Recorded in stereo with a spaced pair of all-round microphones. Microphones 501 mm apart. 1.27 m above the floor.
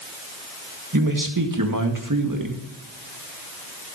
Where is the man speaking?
40° right (ahead or behind), 1.9 m.